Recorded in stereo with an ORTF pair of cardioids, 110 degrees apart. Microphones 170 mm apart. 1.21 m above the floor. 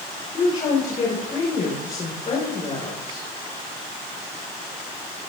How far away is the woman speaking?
About 4 m.